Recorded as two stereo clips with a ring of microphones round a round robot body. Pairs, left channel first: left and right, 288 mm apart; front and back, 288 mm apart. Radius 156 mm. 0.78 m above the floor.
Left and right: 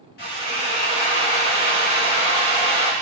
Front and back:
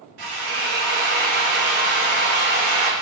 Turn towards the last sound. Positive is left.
turn(degrees=150)